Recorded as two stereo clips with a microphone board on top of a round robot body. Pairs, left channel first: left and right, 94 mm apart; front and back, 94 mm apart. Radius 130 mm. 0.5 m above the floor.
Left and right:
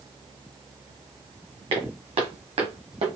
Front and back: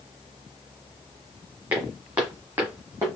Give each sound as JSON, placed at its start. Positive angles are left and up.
{"t": 1.7, "sound": "footsteps", "azimuth_deg": -105, "distance_m": 2.0}